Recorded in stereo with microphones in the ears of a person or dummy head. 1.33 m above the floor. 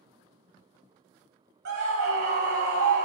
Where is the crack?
I don't hear a crack.